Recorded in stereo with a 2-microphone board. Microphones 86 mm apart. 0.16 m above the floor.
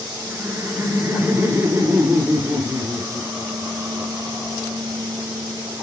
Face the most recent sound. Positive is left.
turn(degrees=-25)  # may be behind; listen again after turning